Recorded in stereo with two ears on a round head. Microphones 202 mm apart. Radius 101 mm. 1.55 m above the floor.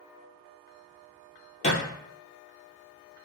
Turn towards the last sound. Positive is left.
turn(degrees=30)  # may be behind; listen again after turning